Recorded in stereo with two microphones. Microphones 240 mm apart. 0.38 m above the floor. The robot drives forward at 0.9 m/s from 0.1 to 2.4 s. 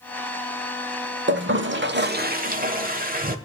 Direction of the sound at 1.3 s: 50° right (ahead or behind).